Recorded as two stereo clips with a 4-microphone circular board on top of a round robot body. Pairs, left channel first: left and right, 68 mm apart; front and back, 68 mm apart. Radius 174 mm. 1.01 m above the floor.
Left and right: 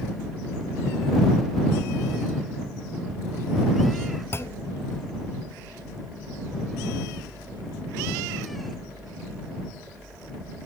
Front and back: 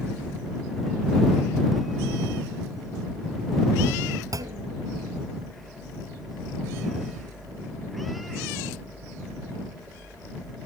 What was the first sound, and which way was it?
A clunk, 145° left.